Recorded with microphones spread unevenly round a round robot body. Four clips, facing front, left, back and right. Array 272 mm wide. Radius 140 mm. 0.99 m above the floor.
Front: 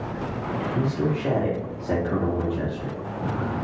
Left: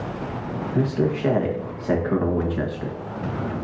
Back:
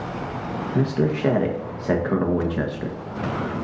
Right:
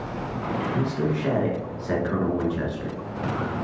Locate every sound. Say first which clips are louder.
0.8 s a man speaking: left 7 dB, back 5 dB; 160° left, 1.4 m